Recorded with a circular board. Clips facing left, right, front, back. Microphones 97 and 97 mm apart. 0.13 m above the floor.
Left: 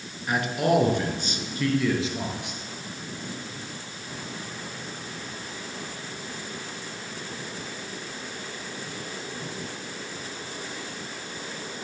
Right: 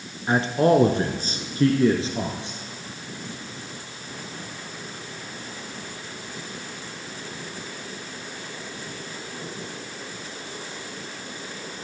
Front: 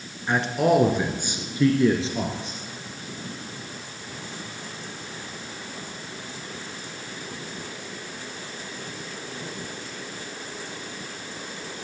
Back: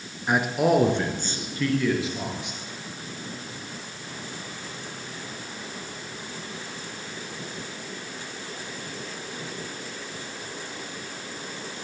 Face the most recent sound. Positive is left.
turn(degrees=-40)